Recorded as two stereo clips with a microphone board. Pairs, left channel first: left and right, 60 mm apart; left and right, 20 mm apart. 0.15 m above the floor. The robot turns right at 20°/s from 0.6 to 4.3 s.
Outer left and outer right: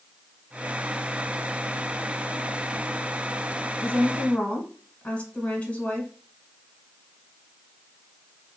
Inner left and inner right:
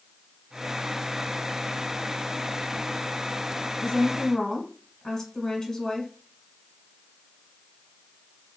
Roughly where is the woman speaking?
Left.